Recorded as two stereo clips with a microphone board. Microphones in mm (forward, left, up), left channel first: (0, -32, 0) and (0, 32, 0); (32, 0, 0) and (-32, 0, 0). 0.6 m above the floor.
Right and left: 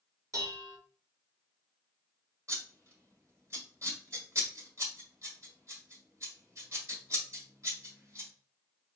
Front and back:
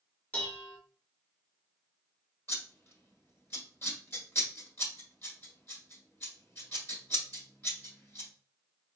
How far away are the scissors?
About 2.0 m.